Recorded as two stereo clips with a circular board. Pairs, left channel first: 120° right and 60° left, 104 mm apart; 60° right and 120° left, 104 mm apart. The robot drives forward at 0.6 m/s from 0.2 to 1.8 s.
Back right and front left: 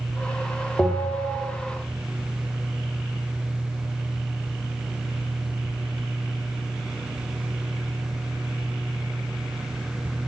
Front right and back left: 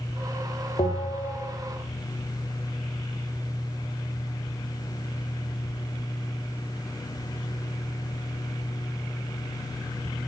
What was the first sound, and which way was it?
A bell, 40° right.